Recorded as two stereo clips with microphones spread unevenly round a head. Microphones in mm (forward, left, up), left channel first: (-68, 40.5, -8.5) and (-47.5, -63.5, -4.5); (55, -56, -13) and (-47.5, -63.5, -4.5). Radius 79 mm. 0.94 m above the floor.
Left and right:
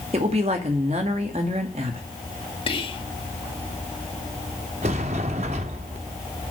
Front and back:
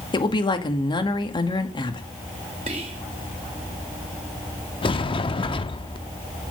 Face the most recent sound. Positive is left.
turn(degrees=-35)